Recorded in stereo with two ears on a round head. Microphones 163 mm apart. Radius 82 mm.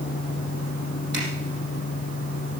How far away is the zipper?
About 5.5 m.